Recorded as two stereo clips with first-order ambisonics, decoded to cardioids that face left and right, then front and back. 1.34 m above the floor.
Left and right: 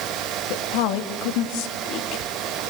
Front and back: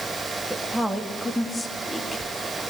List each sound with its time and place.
0.5 s a woman speaking: 95° left, 1.8 m; by 2.2 s 75° left, 2.5 m